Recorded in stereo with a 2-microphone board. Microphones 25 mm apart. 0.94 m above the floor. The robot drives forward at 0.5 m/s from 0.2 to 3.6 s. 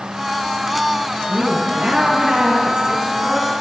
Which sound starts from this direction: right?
A woman speaking, at 1.3 s.